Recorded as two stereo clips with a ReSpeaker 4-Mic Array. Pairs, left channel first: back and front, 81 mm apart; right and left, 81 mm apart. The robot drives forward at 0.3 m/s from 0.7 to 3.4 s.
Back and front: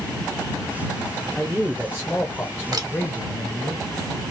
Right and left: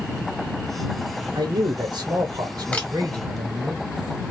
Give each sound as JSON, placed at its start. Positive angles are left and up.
{"t": 1.4, "sound": "a man speaking", "azimuth_deg": 95, "distance_m": 0.8}
{"t": 2.7, "sound": "a camera shutter", "azimuth_deg": -25, "distance_m": 1.0}